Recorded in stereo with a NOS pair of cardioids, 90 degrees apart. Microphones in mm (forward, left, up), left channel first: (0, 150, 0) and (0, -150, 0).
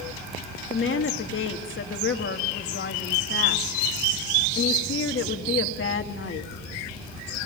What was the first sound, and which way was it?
A woman speaking, 40° left.